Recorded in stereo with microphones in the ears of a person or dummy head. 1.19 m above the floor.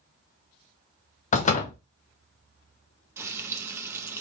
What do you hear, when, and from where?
1.3 s a door slam: 40° left (ahead or behind), 0.8 m
3.2 s frying: 10° right (ahead or behind), 0.5 m